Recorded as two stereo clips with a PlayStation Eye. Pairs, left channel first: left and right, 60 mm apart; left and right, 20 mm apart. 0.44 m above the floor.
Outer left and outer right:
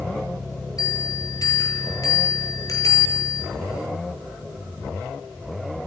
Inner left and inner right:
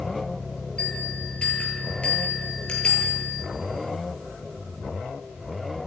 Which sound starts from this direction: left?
A bell, at 0.8 s.